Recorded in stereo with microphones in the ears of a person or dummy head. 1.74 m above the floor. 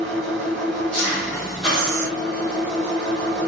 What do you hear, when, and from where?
0.0 s an engine running: 5° left (ahead or behind), 1.5 m
1.7 s breathing: 70° right (ahead or behind), 0.6 m